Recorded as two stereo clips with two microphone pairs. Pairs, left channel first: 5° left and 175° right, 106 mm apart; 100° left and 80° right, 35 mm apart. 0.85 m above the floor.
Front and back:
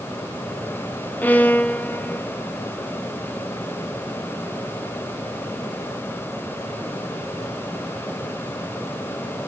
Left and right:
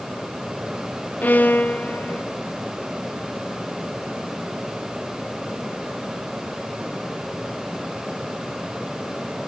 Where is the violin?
80° left, 0.6 m.